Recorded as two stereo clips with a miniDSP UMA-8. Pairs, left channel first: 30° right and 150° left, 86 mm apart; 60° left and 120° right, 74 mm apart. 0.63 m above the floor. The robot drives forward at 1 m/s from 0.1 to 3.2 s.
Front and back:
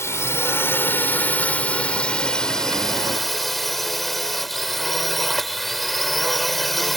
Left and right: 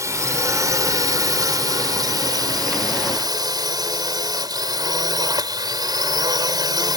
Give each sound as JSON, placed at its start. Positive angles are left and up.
{"t": 0.0, "sound": "a drone", "azimuth_deg": -85}